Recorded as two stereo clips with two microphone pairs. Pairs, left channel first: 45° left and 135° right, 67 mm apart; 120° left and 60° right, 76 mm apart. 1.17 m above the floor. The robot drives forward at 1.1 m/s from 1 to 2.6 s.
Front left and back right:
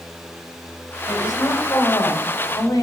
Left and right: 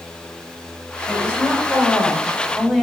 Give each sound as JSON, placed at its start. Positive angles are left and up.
{"t": 1.1, "sound": "a woman speaking", "azimuth_deg": 10, "distance_m": 9.0}